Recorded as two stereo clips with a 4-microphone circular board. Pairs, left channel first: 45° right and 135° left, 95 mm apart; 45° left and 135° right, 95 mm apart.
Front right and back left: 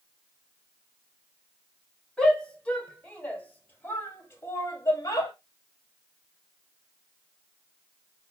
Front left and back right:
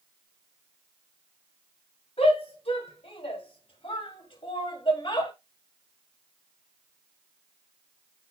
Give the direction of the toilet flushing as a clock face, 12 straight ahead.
No toilet flushing in this recording.